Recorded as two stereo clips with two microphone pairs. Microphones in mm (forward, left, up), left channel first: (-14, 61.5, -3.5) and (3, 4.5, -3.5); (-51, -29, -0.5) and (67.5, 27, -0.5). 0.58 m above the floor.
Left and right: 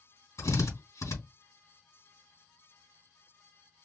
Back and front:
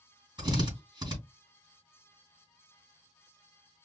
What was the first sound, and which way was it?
A drill, 85° left.